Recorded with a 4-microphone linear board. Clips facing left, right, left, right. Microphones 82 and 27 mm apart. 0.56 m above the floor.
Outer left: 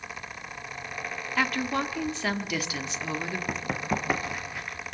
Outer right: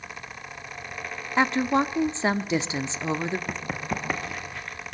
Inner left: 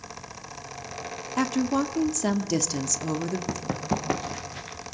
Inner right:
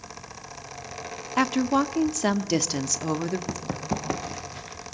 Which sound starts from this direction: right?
A woman speaking, at 1.4 s.